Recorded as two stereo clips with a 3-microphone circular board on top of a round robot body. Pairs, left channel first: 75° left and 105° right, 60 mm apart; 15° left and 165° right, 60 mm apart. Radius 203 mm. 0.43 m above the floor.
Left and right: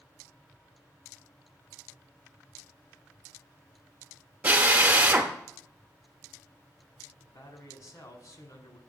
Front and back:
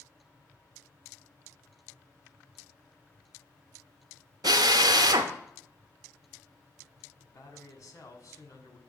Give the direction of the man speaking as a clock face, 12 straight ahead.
10 o'clock.